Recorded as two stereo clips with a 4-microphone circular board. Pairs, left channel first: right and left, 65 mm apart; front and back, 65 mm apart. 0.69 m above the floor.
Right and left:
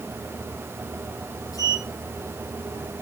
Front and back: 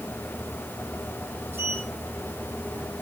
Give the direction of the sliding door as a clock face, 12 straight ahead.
4 o'clock.